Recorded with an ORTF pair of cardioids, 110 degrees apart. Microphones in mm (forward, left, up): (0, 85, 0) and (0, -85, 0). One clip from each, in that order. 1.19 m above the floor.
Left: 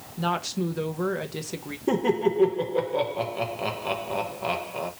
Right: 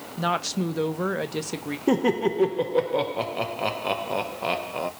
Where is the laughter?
20° right, 1.0 m.